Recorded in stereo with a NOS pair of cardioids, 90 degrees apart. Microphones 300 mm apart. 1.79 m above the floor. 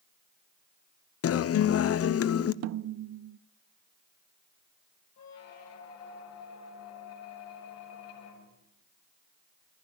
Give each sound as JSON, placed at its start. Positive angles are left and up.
{"t": 1.2, "sound": "a guitar", "azimuth_deg": 55, "distance_m": 1.0}
{"t": 2.6, "sound": "a snare drum", "azimuth_deg": -55, "distance_m": 0.6}
{"t": 5.2, "sound": "a squeak", "azimuth_deg": 55, "distance_m": 6.0}